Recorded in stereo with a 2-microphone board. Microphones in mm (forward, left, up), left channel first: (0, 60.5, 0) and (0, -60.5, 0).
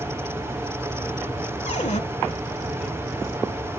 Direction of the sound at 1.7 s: 70° left (ahead or behind).